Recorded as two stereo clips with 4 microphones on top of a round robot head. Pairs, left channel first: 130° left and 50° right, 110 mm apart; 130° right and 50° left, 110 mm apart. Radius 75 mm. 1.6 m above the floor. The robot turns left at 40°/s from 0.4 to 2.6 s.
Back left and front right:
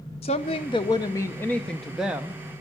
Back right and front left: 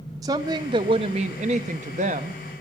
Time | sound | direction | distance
0.2 | a woman speaking | 100° left | 0.6 m